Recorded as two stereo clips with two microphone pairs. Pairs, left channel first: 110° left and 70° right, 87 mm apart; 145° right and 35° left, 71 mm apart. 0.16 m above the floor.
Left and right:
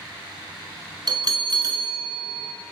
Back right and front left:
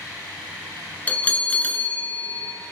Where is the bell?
85° right, 1.1 m.